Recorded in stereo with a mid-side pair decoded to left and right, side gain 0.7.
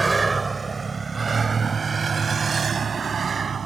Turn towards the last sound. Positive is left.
turn(degrees=-25)